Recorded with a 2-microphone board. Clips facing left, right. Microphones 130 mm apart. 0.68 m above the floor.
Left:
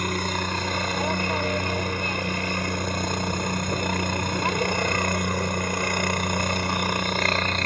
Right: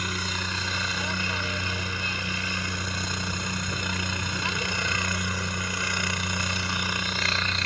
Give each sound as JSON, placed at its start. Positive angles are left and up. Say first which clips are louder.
{"t": 0.0, "sound": "a helicopter", "louder": "left 6 dB", "side_deg": 50}